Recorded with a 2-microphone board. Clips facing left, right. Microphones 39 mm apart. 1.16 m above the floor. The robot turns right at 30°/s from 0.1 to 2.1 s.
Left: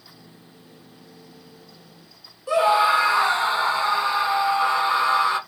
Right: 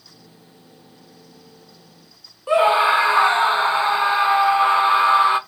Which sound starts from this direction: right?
A scream, at 2.5 s.